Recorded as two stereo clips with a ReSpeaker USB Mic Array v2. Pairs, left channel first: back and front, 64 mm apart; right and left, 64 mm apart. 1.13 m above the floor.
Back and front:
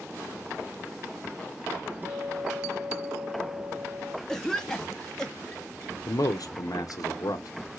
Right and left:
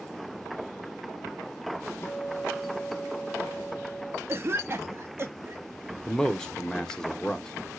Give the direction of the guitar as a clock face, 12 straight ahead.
2 o'clock.